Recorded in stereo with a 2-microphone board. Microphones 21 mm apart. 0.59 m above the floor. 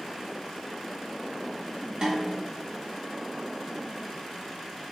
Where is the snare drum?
40° right (ahead or behind), 1.2 m.